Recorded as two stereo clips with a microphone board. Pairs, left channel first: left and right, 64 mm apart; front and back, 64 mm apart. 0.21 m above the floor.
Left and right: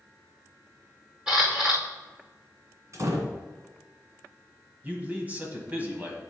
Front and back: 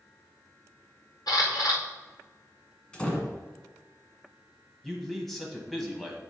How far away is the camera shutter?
About 2.5 m.